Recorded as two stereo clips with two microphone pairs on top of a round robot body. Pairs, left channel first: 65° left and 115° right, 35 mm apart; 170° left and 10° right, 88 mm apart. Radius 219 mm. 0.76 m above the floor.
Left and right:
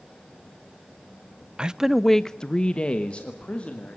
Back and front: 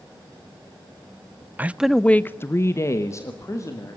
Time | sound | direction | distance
1.6 | a man speaking | 80° right | 0.8 m